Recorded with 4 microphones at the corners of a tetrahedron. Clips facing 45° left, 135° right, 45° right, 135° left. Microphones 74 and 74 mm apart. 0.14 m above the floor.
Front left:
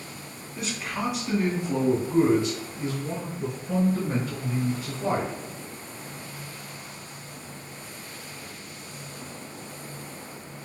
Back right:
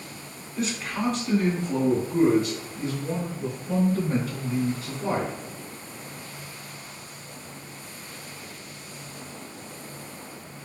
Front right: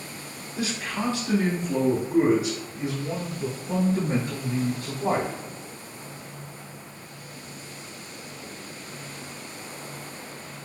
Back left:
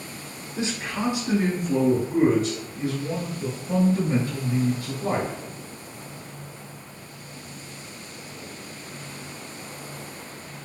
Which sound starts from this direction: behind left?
A man speaking, at 0.6 s.